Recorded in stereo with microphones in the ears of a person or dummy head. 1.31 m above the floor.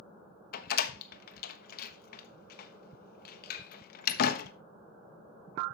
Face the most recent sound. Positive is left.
turn(degrees=55)  # may be behind; listen again after turning